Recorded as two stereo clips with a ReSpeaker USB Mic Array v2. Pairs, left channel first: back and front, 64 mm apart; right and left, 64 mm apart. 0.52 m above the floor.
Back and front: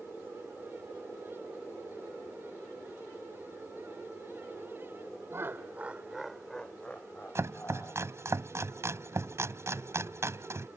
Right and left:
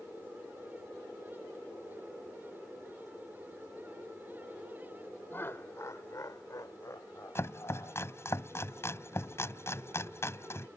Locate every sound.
5.3 s laughter: 35° right; by 8.0 s 130° right
7.3 s chopping: 40° right